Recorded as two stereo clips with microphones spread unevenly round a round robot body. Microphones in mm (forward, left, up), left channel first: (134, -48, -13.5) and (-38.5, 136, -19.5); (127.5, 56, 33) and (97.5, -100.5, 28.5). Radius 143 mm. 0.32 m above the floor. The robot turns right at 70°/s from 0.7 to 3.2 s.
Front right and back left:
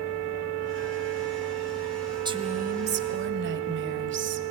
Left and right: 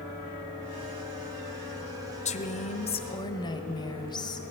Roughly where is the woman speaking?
Left.